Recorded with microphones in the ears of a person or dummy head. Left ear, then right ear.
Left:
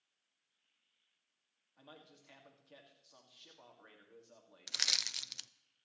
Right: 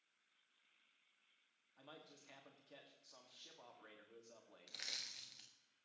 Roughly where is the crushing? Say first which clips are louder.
Left 13 dB; left.